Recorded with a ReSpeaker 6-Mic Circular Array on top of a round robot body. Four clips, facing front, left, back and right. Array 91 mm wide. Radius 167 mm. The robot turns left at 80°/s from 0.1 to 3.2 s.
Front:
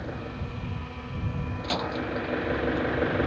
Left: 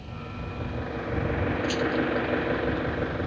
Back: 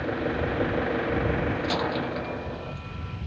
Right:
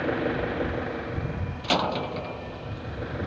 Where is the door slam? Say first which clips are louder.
Right 2 dB, back 3 dB; 80° right; by 2.8 s 170° right.